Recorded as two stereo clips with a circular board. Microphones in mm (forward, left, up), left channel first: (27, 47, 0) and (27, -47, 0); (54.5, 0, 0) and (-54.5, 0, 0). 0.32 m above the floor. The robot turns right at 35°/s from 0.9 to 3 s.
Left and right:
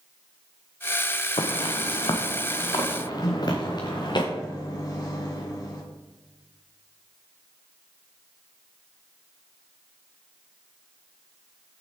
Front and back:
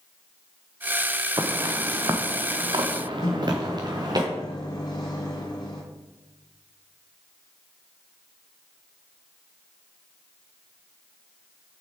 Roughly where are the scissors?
No scissors in this recording.